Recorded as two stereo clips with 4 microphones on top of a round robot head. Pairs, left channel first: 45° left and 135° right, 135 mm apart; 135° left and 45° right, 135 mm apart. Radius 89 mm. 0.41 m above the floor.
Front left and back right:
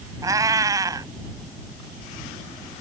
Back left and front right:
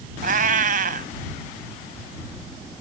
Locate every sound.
0.2 s a cat meowing: 70° right